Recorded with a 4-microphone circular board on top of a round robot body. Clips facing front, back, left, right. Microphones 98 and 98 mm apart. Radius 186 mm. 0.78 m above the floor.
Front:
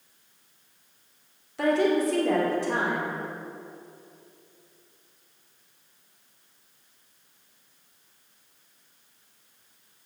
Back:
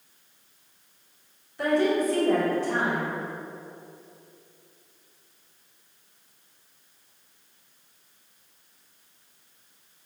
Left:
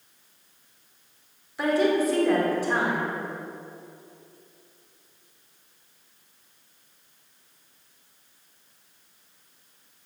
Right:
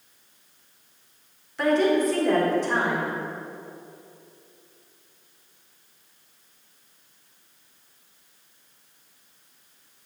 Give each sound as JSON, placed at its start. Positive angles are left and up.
{"t": 1.6, "sound": "a woman speaking", "azimuth_deg": 5, "distance_m": 3.5}